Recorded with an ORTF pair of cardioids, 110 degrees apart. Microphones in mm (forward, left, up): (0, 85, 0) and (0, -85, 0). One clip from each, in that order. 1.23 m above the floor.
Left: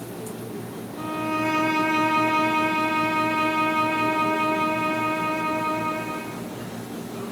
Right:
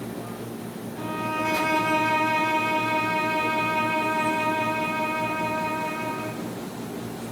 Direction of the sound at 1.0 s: 10° right.